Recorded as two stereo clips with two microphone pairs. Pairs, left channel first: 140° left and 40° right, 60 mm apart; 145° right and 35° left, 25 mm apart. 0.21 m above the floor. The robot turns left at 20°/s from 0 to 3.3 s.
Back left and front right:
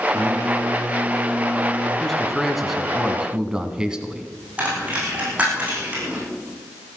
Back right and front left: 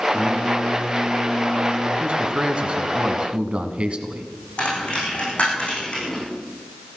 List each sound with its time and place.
0.1 s singing: 45° right, 6 m; by 1.9 s 80° right, 6 m
2.0 s a man speaking: 55° left, 1.8 m; by 4.3 s 30° left, 1.8 m
4.6 s a dropped coin: 110° right, 7.5 m